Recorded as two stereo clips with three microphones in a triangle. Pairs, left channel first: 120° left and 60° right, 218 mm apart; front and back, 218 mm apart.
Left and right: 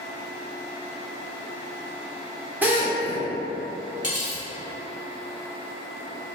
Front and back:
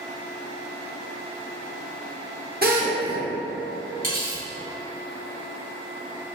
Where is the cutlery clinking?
155° left, 1.4 m.